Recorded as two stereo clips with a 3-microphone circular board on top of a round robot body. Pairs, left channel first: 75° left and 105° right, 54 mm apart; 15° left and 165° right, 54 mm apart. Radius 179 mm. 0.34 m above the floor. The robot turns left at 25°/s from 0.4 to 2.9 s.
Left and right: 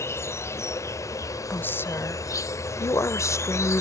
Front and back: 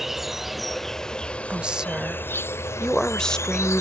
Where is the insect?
110° left; by 3.8 s 45° left.